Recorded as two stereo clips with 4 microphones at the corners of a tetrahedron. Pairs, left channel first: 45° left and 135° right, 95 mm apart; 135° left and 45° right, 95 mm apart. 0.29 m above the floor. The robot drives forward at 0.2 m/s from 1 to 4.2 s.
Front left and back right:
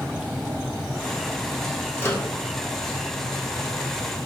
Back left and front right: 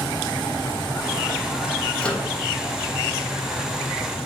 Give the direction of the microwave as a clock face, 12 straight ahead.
10 o'clock.